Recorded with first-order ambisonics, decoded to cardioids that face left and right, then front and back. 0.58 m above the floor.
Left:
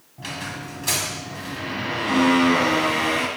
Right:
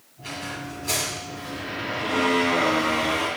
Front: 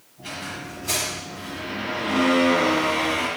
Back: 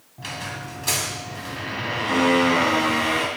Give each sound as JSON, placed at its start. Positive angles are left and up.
{"t": 0.2, "sound": "a squeak", "azimuth_deg": 135, "distance_m": 1.9}